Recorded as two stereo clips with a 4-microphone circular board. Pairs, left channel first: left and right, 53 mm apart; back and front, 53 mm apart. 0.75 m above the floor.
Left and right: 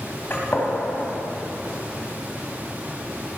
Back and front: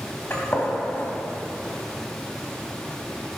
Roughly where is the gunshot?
Behind left.